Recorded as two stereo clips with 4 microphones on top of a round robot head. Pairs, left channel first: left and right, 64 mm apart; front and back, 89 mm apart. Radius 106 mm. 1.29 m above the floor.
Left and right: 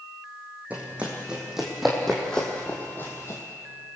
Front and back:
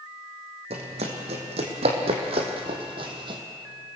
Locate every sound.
0.7 s running footsteps: 165° right, 3 m; by 3.4 s 150° left, 2.5 m